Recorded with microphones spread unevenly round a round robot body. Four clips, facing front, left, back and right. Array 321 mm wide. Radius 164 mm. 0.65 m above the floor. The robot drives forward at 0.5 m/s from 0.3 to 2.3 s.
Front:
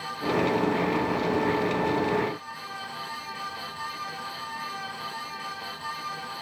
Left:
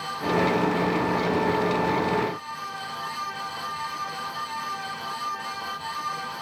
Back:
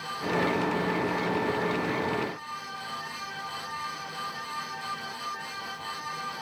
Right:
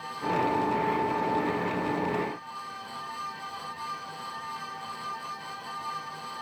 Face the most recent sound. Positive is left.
No sound to turn to.